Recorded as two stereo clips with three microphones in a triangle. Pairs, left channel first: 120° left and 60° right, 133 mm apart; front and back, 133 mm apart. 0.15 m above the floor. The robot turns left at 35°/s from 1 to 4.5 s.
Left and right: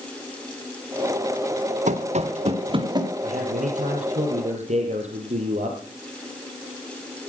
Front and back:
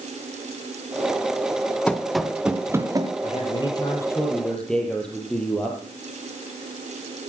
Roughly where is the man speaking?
Ahead right.